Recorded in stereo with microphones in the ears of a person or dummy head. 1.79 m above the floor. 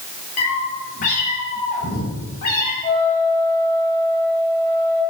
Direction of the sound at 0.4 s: 40° left (ahead or behind).